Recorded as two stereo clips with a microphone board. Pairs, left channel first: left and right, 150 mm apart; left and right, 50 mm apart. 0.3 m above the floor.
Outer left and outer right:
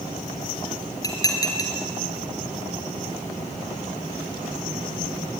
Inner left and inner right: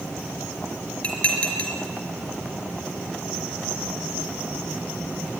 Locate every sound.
1.0 s dishes clattering: 25° left (ahead or behind), 4 m